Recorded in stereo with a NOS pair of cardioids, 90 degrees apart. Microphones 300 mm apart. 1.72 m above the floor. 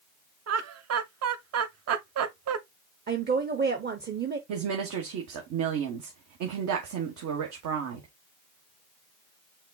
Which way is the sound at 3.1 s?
35° right.